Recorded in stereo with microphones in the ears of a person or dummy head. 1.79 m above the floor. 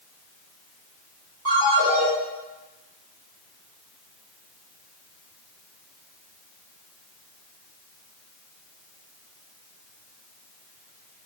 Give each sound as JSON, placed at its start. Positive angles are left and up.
{"t": 1.4, "sound": "a ringtone", "side_deg": -30, "distance_m": 1.3}